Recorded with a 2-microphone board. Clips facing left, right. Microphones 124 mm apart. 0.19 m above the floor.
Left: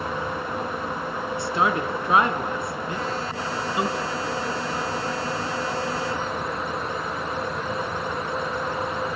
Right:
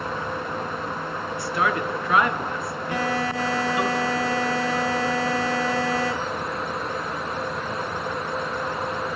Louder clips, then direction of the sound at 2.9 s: Right 8 dB; 85° right.